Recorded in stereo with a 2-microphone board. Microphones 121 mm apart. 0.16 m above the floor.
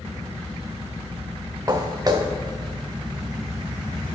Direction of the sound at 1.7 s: 30° right (ahead or behind).